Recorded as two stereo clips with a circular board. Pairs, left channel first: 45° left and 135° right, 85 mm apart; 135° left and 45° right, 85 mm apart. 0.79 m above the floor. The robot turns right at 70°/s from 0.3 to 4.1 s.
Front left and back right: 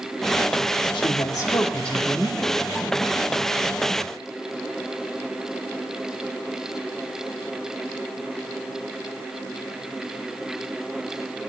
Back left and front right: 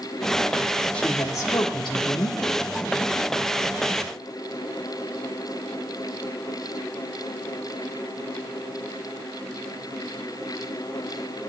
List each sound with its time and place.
0.9 s a woman speaking: 60° left, 1.6 m; by 2.4 s 160° left, 1.6 m